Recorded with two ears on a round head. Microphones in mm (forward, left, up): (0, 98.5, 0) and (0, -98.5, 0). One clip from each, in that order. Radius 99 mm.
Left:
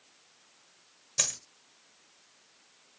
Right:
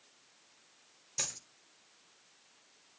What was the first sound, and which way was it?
A dropped coin, 15° left (ahead or behind).